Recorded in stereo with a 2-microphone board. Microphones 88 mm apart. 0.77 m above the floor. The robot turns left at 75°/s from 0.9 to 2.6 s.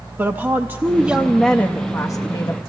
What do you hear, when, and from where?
0.2 s a woman speaking: 145° right, 0.6 m; by 2.6 s 85° left, 0.6 m